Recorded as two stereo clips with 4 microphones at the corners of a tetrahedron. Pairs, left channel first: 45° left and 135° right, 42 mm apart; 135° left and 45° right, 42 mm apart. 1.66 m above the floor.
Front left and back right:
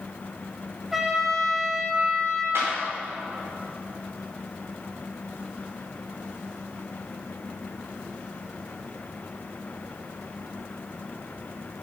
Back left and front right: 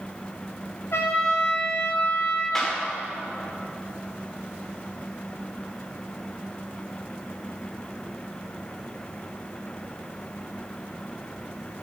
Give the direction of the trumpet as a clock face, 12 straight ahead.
7 o'clock.